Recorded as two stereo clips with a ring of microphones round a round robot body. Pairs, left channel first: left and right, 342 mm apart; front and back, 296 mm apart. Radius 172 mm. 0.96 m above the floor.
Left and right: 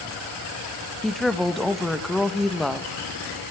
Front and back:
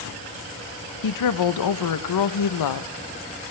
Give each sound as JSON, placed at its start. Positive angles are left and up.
{"t": 1.0, "sound": "a woman speaking", "azimuth_deg": 0, "distance_m": 0.7}